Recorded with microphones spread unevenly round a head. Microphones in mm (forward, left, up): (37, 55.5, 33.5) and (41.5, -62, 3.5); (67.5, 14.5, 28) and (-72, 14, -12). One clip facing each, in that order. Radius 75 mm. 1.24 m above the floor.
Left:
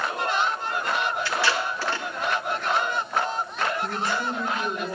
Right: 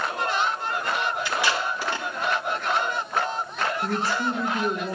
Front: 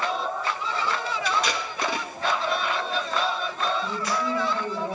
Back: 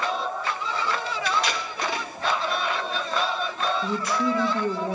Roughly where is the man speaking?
Behind right.